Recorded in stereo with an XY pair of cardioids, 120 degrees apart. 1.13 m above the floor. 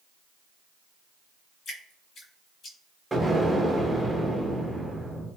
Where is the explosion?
10° right, 0.9 m.